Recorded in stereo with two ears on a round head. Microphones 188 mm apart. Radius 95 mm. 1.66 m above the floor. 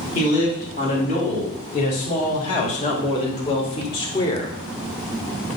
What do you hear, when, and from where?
0.1 s a man speaking: 40° left (ahead or behind), 3 m; by 4.5 s 15° left (ahead or behind), 1.1 m